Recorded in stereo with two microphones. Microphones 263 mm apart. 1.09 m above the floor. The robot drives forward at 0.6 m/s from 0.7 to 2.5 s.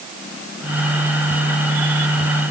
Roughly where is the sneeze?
No sneeze in this recording.